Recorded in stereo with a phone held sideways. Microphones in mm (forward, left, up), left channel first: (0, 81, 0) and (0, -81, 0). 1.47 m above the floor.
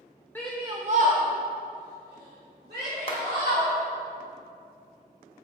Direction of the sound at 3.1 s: 35° left (ahead or behind).